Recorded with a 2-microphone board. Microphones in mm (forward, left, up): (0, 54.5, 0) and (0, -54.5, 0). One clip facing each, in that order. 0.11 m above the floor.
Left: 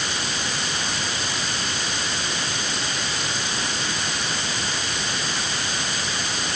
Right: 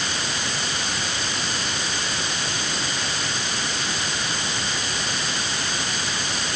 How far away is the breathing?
I don't hear breathing.